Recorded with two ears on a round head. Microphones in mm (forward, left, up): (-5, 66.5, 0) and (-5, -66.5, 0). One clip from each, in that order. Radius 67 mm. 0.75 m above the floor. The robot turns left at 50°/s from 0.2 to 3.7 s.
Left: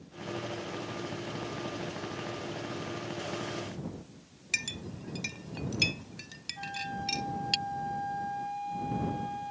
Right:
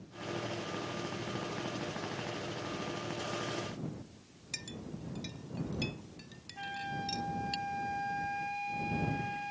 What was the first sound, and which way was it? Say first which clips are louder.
A clink: left 10 dB; 60° left (ahead or behind).